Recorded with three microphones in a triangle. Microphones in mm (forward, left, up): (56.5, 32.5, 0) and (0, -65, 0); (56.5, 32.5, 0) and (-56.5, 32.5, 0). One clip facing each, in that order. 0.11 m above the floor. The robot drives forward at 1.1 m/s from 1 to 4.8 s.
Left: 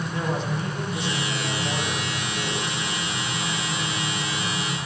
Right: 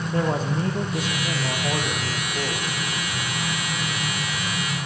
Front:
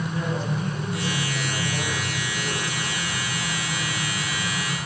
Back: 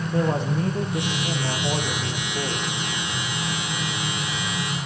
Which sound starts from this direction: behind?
A man speaking, at 0.1 s.